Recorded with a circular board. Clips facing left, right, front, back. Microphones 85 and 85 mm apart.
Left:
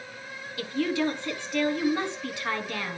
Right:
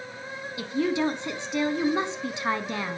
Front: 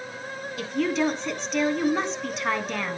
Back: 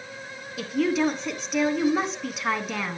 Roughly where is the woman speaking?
Right.